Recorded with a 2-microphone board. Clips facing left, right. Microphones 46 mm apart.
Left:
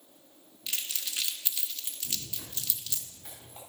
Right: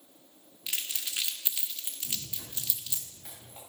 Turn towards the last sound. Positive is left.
turn(degrees=-5)  # may be behind; listen again after turning